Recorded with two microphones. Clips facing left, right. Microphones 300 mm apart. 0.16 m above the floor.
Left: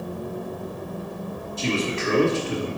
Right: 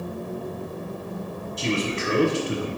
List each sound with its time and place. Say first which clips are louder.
1.6 s a man speaking: left 1 dB; 20° right (ahead or behind), 1.0 m